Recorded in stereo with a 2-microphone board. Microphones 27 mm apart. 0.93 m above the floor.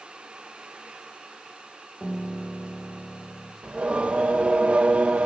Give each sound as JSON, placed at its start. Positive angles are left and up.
{"t": 2.0, "sound": "a piano", "side_deg": 55, "distance_m": 2.5}
{"t": 3.6, "sound": "singing", "side_deg": -45, "distance_m": 2.5}